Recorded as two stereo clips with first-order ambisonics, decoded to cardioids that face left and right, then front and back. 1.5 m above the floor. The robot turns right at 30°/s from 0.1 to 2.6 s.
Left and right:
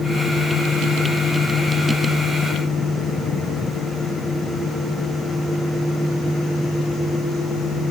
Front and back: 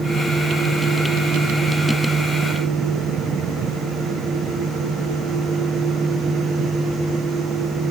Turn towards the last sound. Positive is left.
No sound to turn to.